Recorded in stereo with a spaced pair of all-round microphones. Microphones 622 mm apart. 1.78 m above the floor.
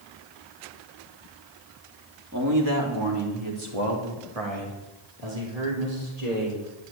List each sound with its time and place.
2.3 s a man speaking: 25° right (ahead or behind), 3 m; by 6.6 s 80° right, 4.5 m